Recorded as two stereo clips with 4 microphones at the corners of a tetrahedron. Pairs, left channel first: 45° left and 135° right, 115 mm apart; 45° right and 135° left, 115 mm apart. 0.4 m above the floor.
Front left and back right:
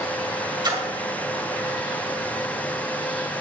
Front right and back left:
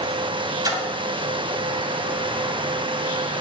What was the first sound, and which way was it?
A splash, 175° right.